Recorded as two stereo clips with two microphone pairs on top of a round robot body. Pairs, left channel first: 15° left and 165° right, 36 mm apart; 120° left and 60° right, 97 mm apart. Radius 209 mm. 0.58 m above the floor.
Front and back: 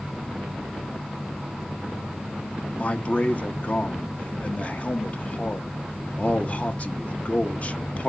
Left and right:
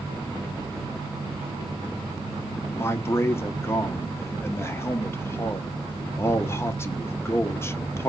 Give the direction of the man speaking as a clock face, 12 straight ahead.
10 o'clock.